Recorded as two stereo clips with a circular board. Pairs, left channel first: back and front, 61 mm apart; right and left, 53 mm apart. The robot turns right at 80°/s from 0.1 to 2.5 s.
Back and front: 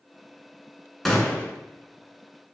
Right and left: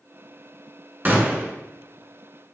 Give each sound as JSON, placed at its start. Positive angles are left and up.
{"t": 1.1, "sound": "a gunshot", "azimuth_deg": 95, "distance_m": 0.7}